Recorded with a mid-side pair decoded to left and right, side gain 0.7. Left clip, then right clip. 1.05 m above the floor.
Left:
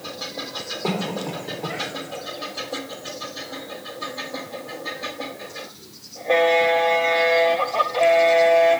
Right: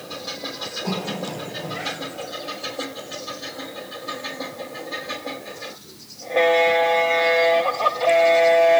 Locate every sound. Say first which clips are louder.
0.8 s a cough: left 3 dB; 40° left, 3.5 m